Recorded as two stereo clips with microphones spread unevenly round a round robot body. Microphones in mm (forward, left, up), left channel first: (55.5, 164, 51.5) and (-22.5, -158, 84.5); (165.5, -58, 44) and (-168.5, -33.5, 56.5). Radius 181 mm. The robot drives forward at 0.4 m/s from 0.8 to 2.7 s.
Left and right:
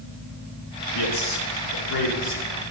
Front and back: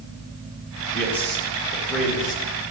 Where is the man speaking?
80° left, 5 m; by 2.4 s 90° left, 5 m.